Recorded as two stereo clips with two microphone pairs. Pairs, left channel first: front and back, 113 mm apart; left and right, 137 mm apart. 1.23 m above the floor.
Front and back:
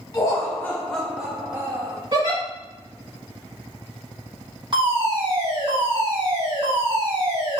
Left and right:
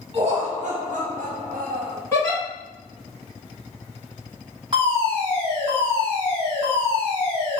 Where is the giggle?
155° left, 1.6 m.